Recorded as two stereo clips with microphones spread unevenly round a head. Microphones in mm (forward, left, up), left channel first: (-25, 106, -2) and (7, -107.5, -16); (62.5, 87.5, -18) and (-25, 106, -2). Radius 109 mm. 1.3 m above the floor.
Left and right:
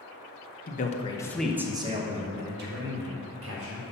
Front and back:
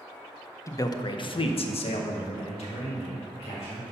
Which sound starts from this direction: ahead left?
A man speaking, at 0.7 s.